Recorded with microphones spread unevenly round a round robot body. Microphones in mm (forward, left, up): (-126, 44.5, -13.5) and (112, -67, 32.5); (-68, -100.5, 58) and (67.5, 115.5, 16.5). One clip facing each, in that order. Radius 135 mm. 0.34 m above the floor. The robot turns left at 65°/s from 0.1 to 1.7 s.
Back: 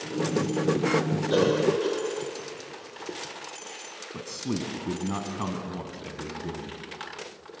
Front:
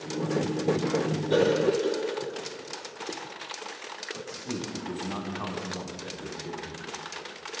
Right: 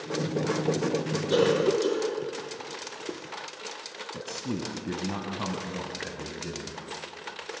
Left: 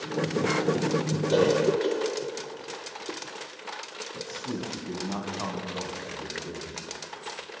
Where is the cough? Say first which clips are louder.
Even, even; 165° right, 1.0 m; by 3.4 s 170° left, 1.0 m.